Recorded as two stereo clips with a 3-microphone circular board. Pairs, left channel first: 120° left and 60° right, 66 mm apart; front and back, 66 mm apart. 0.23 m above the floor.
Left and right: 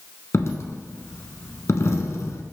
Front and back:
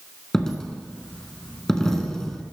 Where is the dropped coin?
80° left, 1.2 m.